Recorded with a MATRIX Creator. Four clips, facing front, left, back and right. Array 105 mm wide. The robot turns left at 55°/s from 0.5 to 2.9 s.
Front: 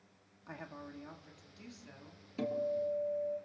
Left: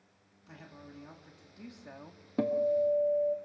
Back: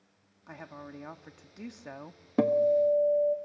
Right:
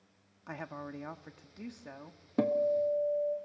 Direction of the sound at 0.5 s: 95° right.